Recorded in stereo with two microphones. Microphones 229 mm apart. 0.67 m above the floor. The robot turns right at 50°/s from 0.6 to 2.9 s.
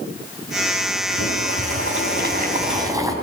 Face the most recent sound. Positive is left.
turn(degrees=-15)